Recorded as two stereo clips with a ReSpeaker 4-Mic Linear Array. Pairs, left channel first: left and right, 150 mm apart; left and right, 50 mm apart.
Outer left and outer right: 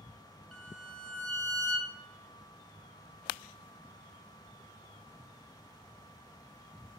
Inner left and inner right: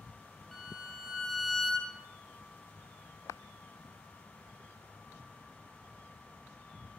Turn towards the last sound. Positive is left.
turn(degrees=5)  # may be behind; listen again after turning